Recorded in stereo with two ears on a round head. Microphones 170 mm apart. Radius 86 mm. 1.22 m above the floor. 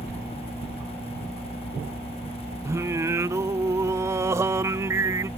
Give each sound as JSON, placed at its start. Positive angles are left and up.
{"t": 2.6, "sound": "singing", "side_deg": -15}